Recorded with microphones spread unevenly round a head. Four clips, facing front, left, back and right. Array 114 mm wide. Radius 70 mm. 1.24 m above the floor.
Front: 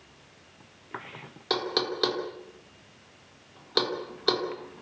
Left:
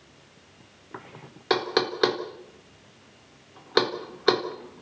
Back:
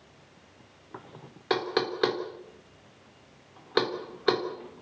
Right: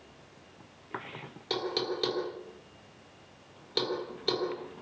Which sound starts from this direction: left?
Knocking, at 1.5 s.